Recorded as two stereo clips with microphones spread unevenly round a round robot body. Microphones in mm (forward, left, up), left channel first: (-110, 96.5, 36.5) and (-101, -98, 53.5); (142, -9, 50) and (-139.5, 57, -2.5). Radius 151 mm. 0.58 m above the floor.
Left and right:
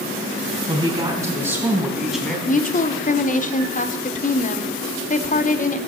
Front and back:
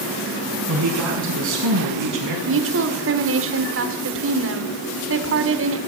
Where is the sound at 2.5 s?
135° left, 1.5 m.